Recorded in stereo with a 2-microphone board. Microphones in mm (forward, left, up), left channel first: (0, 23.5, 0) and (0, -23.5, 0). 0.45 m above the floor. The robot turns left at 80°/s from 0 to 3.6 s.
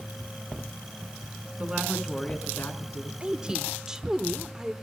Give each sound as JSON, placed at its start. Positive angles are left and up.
{"t": 1.6, "sound": "a woman speaking", "azimuth_deg": -145, "distance_m": 5.0}
{"t": 3.2, "sound": "a woman speaking", "azimuth_deg": -125, "distance_m": 1.2}